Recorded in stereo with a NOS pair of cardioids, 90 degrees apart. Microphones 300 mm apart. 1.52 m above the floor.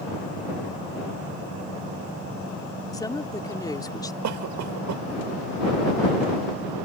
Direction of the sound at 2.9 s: 10° left.